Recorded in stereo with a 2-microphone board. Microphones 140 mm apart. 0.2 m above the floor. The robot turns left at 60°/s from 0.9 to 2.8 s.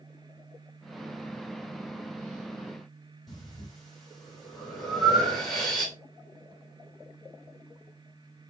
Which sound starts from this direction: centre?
Breathing, at 3.3 s.